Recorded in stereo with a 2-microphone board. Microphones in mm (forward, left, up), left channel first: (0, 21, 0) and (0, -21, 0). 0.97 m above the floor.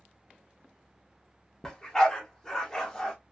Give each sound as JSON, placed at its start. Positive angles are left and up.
{"t": 1.6, "sound": "a dog barking", "side_deg": 15, "distance_m": 0.7}